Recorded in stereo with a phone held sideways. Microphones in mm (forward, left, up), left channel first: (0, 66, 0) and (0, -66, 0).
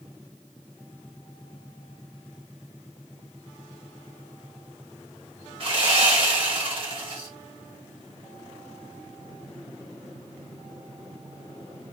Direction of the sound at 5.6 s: 40° right (ahead or behind).